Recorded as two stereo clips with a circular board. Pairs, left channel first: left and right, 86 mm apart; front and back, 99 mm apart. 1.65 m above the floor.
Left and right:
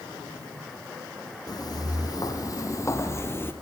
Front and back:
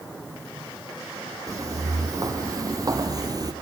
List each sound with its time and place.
1.5 s footsteps: 125° left, 4 m; by 3.5 s 145° left, 2.5 m